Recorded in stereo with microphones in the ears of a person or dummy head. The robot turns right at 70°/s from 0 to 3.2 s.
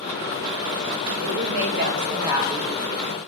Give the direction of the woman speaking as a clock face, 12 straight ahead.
3 o'clock.